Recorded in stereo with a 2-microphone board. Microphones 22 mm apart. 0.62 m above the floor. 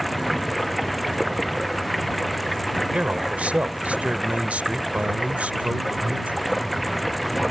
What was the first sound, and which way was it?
Running water, centre (ahead or behind).